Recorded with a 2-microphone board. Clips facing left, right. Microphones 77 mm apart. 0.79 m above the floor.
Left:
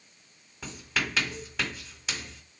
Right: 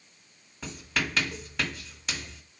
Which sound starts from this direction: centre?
Writing, at 0.6 s.